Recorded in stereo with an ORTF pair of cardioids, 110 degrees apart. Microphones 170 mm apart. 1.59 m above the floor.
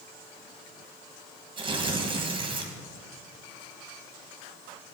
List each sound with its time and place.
1.6 s tearing paper: 30° right, 1.5 m